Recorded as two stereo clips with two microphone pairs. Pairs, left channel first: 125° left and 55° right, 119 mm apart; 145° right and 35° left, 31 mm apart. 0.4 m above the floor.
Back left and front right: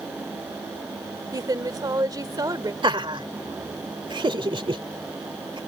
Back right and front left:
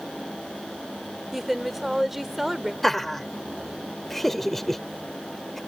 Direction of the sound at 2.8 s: 60° right.